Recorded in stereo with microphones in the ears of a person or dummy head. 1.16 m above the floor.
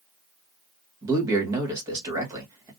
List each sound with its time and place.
1.0 s a man speaking: 15° right (ahead or behind), 1.3 m